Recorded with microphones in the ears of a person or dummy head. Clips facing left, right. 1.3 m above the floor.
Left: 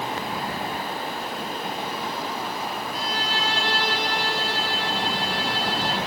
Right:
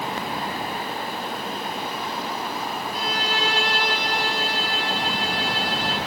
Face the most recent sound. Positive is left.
turn(degrees=-55)  # may be behind; listen again after turning